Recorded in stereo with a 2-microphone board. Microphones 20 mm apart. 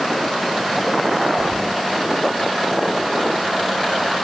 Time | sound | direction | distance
1.4 | keys jangling | 15° left (ahead or behind) | 4 m